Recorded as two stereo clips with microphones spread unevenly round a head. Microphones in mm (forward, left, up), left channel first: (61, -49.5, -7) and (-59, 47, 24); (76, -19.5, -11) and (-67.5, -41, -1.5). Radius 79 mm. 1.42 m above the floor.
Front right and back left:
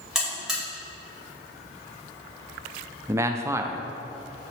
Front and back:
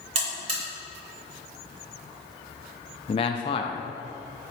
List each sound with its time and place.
0.1 s a buzzer: 140° right, 2.5 m
3.1 s a man speaking: 65° left, 0.6 m